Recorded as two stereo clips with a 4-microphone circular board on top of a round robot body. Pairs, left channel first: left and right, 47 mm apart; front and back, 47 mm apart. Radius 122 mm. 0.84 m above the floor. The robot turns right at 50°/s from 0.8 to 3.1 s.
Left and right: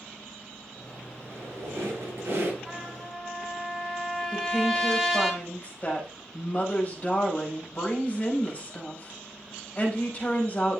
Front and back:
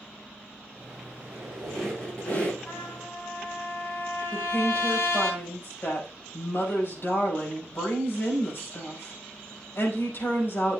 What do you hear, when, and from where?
1.2 s a squeak: 120° right, 6.5 m; by 2.5 s 50° right, 6.5 m
2.6 s a trumpet: 10° right, 4 m; by 5.3 s 10° left, 4 m
4.3 s a woman speaking: 35° left, 5 m